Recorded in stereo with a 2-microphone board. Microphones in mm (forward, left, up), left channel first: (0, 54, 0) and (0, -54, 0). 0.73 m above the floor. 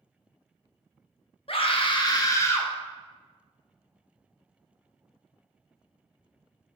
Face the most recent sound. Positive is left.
turn(degrees=15)  # may be behind; listen again after turning